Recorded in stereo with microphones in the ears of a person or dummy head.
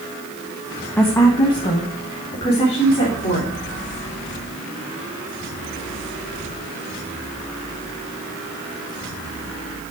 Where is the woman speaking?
10° left (ahead or behind), 0.9 m; by 3.5 s 25° left (ahead or behind), 3.5 m.